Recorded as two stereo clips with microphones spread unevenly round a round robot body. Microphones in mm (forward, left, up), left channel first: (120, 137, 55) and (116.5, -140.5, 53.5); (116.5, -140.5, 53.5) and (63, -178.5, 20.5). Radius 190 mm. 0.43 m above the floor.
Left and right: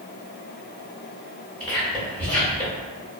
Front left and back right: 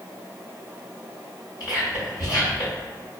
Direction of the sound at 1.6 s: 30° left.